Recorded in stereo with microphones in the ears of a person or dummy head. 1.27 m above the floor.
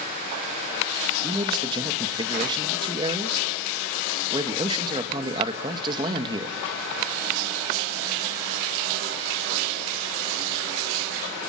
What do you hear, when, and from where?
1.2 s a man speaking: 25° right (ahead or behind), 1.6 m